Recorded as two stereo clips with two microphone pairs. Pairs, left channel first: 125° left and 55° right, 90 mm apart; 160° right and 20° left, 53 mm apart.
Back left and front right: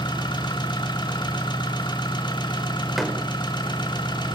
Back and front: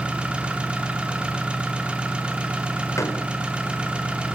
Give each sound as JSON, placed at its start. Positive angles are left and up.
{"t": 0.0, "sound": "an engine running", "azimuth_deg": 95, "distance_m": 3.5}
{"t": 3.0, "sound": "a door slam", "azimuth_deg": -145, "distance_m": 4.5}